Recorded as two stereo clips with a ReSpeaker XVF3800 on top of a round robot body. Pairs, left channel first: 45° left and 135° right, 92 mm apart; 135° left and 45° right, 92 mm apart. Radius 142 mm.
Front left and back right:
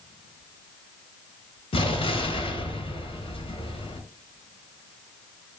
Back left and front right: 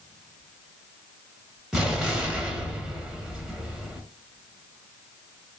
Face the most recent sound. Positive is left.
turn(degrees=40)